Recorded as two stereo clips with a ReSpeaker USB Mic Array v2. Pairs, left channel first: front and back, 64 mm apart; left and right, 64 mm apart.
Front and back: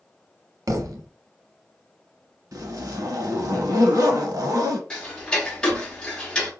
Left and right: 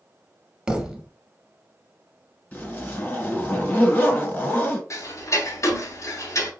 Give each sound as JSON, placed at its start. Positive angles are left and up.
{"t": 0.7, "sound": "a thud", "azimuth_deg": -165, "distance_m": 0.6}
{"t": 2.5, "sound": "a zipper", "azimuth_deg": 160, "distance_m": 1.2}
{"t": 4.9, "sound": "ticking", "azimuth_deg": 70, "distance_m": 0.9}